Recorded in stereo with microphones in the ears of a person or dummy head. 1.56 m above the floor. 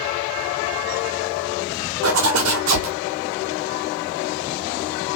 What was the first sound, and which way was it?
A zipper, 85° right.